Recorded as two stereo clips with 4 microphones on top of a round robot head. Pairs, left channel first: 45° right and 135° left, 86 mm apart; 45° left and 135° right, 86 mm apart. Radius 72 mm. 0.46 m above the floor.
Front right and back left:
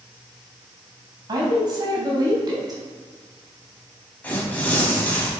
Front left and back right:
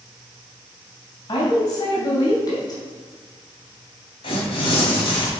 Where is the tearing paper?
25° left, 3 m.